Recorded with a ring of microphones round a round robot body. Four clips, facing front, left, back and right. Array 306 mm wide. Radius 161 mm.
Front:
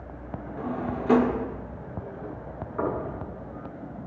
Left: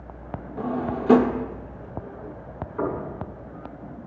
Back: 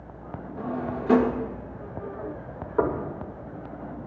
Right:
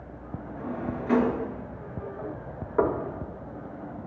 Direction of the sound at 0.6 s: 90° left.